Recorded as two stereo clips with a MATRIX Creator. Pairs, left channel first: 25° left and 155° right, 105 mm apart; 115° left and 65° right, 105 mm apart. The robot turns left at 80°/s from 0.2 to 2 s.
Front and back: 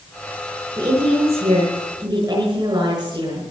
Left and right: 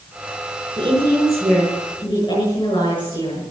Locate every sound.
0.8 s a woman speaking: 105° right, 7 m; by 3.5 s 155° left, 7 m